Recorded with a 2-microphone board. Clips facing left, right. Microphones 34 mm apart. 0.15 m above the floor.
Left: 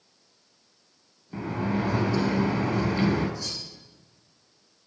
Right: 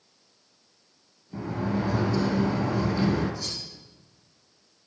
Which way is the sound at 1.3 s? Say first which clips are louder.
Left 1 dB; 40° left (ahead or behind).